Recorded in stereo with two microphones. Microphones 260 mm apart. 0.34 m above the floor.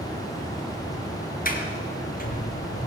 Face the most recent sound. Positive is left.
turn(degrees=35)  # may be behind; listen again after turning